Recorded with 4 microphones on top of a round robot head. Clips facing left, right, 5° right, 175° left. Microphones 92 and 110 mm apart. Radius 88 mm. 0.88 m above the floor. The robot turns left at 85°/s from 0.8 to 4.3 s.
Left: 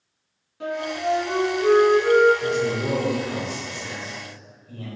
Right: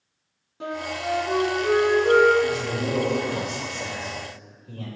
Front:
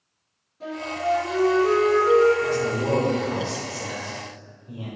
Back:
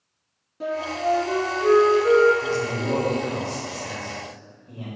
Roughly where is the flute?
Behind right.